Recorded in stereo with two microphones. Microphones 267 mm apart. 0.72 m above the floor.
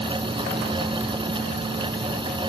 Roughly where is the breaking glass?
No breaking glass in this recording.